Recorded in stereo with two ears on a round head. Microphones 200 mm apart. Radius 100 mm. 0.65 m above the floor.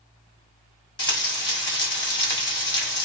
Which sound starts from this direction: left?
Frying, at 1.0 s.